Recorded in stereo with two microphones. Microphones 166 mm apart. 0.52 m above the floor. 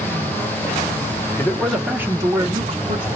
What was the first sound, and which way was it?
A man speaking, 15° left (ahead or behind).